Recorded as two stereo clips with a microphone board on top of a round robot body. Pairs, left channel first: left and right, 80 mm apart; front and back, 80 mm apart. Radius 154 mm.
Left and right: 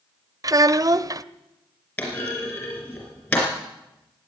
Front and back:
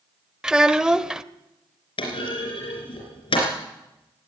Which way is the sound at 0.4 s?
100° right.